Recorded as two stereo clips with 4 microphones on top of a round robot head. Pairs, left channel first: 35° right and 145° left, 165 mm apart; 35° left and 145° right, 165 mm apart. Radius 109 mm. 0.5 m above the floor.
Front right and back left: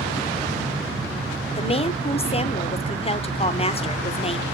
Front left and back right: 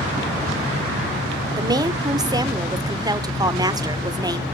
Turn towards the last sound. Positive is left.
turn(degrees=-80)